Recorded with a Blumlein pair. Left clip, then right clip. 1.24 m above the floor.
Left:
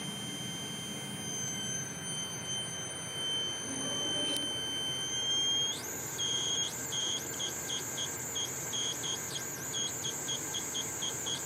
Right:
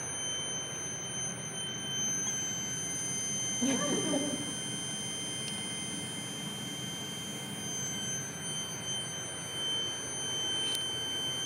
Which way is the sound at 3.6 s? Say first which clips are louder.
Right 4 dB; 40° right.